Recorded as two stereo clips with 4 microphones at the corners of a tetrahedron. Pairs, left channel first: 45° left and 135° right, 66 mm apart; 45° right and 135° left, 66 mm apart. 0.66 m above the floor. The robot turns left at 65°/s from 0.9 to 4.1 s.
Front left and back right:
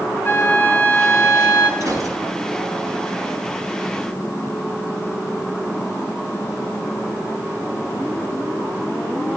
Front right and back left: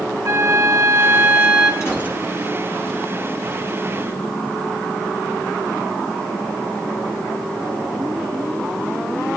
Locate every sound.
0.2 s a flute: 95° left, 3.5 m; by 1.7 s 45° left, 3.5 m
1.8 s a gunshot: 90° right, 5 m; by 2.2 s 115° right, 5 m